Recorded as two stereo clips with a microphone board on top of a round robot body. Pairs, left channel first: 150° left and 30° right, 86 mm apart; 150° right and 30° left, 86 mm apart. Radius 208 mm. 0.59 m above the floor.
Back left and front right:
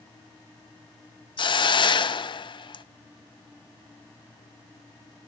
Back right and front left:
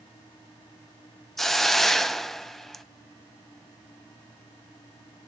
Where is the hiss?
125° left, 0.6 m.